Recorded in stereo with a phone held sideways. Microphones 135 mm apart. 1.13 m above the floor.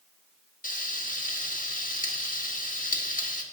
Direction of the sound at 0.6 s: 80° left.